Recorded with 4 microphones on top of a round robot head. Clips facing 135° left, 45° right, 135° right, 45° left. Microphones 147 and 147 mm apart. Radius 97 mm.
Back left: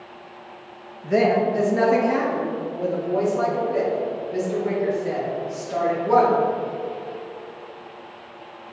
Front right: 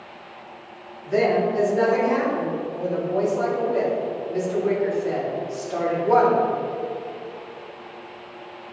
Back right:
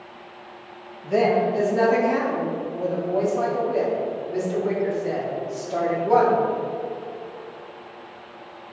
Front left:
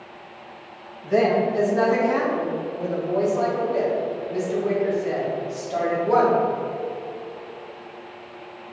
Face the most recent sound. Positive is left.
turn(degrees=165)